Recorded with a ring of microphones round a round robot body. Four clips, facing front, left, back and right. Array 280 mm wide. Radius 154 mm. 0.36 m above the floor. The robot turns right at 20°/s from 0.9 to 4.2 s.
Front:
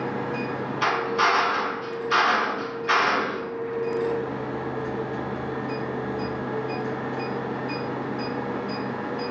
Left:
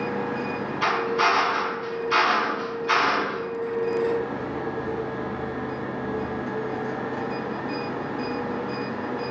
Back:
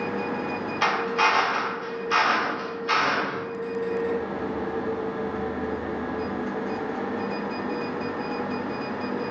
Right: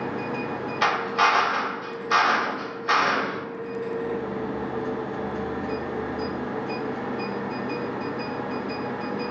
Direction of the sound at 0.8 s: 115° right.